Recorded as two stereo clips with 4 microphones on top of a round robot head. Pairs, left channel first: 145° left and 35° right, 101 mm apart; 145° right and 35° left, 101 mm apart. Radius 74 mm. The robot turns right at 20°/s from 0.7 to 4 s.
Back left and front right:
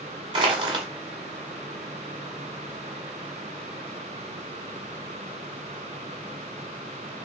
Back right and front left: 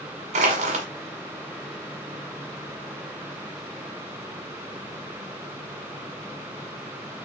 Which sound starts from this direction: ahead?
Crushing, at 0.3 s.